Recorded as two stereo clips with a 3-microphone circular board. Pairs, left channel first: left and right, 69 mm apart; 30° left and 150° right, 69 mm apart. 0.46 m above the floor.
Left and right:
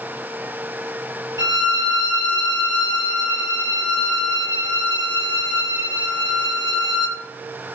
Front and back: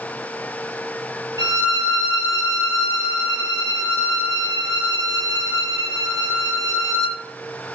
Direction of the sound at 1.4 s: 110° right.